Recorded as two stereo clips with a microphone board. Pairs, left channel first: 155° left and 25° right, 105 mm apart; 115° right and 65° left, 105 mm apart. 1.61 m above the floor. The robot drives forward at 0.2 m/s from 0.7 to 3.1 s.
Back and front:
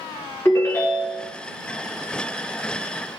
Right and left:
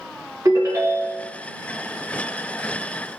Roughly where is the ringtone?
Left.